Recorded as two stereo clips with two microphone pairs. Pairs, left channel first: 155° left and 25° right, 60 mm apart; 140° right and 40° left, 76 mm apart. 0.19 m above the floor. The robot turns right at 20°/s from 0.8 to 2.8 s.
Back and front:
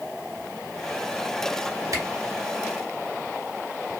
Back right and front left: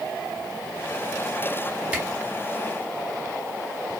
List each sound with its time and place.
1.9 s a camera shutter: 25° right, 1.2 m; by 2.0 s 20° right, 1.2 m